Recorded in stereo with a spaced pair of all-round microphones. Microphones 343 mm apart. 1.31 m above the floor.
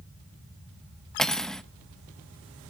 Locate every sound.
1.2 s cutlery clinking: centre (ahead or behind), 0.5 m